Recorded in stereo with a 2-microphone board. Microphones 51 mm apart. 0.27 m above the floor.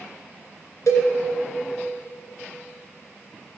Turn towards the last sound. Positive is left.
turn(degrees=75)  # may be behind; listen again after turning